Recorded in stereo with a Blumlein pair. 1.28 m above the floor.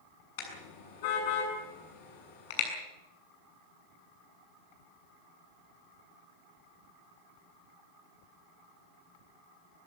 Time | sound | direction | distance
0.4 | a car horn | 50° left | 7 m